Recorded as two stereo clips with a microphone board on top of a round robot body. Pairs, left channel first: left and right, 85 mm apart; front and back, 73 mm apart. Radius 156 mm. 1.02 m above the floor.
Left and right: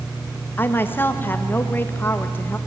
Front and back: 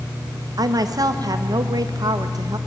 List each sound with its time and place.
0.6 s a woman speaking: 155° left, 1.6 m